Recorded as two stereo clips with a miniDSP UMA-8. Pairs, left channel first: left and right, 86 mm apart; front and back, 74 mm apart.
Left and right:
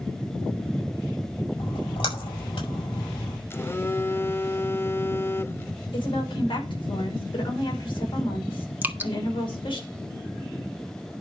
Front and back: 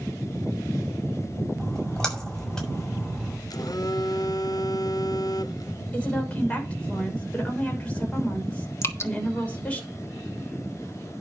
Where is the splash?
80° left, 6 m.